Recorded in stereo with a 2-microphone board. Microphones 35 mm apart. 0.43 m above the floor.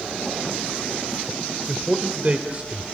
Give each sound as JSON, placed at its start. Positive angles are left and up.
{"t": 1.7, "sound": "a man speaking", "side_deg": -45, "distance_m": 1.4}